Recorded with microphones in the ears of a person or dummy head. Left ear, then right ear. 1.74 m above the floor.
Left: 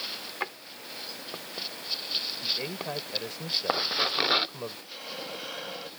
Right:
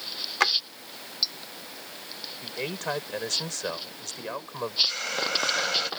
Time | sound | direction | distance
0.4 | a drawer | 70° right (ahead or behind) | ?
2.4 | a man speaking | 45° right (ahead or behind) | ?
4.9 | a hiss | 60° right (ahead or behind) | ?